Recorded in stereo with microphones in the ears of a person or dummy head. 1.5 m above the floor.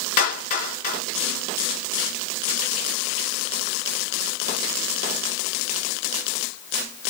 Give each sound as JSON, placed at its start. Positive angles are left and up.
{"t": 0.2, "sound": "a clap", "side_deg": 45, "distance_m": 2.5}